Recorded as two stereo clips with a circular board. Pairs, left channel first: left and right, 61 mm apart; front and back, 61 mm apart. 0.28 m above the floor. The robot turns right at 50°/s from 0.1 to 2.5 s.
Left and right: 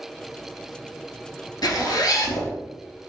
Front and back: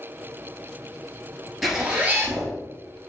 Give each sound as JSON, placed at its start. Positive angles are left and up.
{"t": 1.6, "sound": "a zipper", "azimuth_deg": 90, "distance_m": 1.0}